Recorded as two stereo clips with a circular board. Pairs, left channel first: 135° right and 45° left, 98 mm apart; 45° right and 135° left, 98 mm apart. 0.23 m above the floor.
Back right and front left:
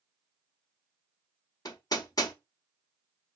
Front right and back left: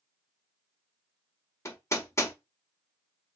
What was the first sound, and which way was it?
Hammering, 95° right.